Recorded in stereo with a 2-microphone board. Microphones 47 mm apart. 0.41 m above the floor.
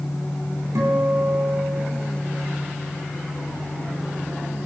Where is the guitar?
75° right (ahead or behind), 3 m.